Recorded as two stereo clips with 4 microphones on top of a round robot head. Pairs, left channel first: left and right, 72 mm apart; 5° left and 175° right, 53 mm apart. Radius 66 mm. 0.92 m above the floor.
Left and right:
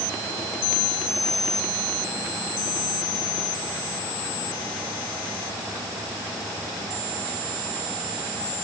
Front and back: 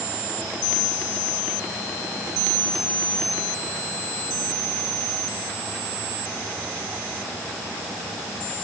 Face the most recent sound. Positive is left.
No sound to turn to.